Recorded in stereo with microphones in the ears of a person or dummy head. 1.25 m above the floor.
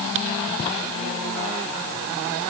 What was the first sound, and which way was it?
Only background noise.